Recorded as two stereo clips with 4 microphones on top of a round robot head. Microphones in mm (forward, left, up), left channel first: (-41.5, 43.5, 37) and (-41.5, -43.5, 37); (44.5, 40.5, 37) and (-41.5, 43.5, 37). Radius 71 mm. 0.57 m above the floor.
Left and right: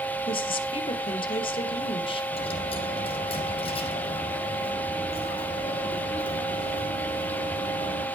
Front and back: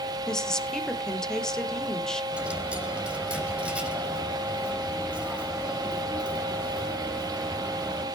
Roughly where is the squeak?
No squeak in this recording.